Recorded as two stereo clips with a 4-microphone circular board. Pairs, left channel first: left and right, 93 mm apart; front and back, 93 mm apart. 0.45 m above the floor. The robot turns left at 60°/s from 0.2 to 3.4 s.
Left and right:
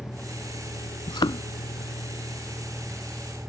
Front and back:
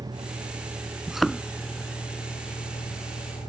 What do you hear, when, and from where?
0.0 s a vehicle: 160° left; by 3.5 s 25° right
1.1 s a thud: 100° left; by 1.4 s 75° left